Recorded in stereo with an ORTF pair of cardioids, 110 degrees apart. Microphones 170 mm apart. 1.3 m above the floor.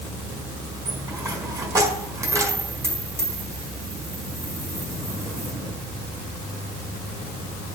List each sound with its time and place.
0.8 s a dropped coin: 20° right, 4.5 m